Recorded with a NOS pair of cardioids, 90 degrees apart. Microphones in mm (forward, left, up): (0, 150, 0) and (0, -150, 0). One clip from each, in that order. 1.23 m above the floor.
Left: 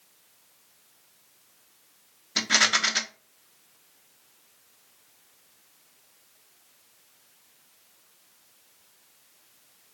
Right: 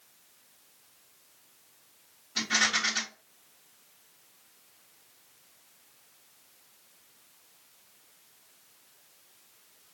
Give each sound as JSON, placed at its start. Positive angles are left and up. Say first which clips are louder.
{"t": 2.4, "sound": "a rattle", "louder": "left 5 dB", "azimuth_deg": 50, "distance_m": 1.0}